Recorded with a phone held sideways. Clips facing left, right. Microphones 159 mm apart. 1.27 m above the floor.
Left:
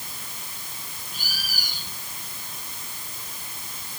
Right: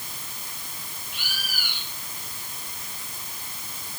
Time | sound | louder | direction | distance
1.1 | a bird | even | 40° left (ahead or behind) | ?